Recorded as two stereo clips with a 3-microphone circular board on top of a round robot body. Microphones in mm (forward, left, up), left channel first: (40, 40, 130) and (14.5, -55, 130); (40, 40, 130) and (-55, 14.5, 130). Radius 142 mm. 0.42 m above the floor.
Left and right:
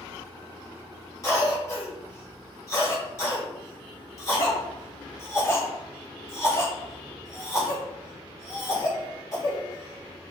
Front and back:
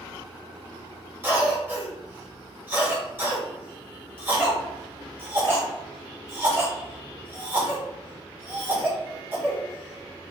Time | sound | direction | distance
1.2 | a cough | 130° left | 2.0 m